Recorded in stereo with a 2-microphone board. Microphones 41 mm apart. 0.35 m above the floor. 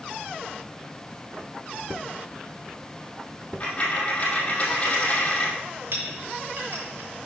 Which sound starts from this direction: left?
A dropped coin, at 3.6 s.